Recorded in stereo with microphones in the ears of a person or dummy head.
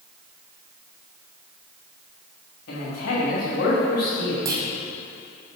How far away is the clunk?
About 1.9 m.